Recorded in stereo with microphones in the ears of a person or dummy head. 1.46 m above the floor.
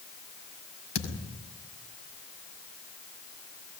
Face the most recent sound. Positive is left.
turn(degrees=65)  # may be behind; listen again after turning